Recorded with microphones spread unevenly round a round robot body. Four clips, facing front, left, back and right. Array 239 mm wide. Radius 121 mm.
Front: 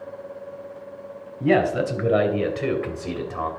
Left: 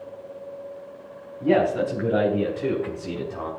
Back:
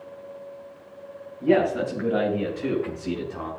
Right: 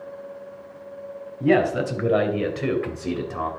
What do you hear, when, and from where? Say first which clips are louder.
1.4 s a man speaking: right 1 dB, front 1 dB; 35° right, 3 m; by 3.5 s 65° right, 2.5 m